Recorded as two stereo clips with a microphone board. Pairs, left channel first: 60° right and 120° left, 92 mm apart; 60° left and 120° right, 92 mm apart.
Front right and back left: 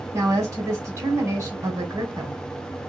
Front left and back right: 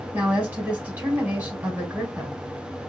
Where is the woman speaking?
170° left, 2.5 m.